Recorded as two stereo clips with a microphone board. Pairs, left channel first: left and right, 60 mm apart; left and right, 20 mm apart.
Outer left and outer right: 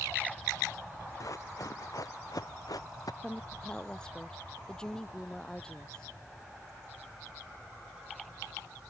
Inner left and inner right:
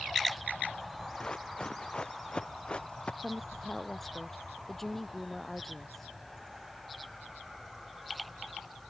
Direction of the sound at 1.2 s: 65° left (ahead or behind).